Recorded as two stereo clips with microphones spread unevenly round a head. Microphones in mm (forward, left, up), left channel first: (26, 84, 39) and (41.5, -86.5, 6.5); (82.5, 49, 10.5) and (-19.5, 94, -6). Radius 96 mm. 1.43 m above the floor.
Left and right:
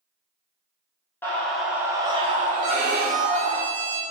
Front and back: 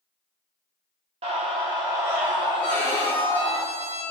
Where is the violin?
70° right, 1.2 m.